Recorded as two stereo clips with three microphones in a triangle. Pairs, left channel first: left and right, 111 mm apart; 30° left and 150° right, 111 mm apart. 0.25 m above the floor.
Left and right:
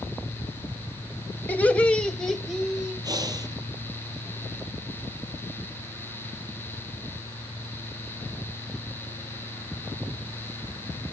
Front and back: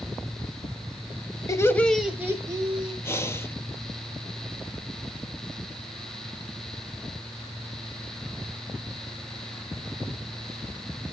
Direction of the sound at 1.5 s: 35° left.